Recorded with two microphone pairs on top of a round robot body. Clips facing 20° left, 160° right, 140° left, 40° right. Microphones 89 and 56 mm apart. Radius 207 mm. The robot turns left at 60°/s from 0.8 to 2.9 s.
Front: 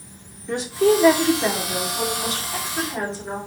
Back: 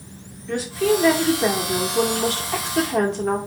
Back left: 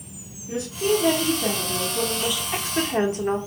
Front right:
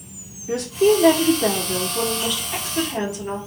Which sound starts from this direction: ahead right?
A woman speaking, at 0.5 s.